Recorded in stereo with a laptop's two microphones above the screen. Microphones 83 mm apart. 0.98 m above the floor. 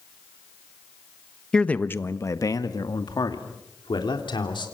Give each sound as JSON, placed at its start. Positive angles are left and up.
{"t": 1.5, "sound": "a man speaking", "side_deg": 10, "distance_m": 1.2}